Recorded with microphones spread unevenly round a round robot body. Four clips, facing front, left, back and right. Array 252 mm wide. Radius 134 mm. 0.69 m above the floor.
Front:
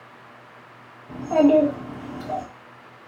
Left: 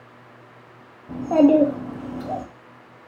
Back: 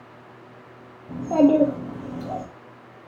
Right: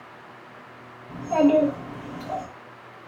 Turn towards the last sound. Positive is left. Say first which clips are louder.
# left 3 dB, front 1 dB
turn(degrees=110)